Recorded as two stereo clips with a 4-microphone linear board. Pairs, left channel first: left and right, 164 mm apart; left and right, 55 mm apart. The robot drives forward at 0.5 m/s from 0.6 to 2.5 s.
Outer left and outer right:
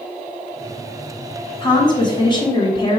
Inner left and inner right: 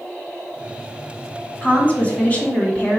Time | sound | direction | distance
1.6 | a woman speaking | 30° left (ahead or behind) | 1.2 m